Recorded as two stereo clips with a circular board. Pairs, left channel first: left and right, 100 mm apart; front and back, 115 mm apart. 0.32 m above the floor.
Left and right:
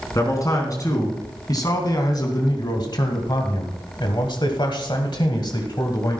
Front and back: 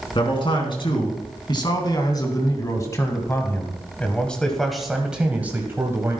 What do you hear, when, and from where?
0.1 s a man speaking: 35° left, 3 m; by 6.2 s 125° left, 1.7 m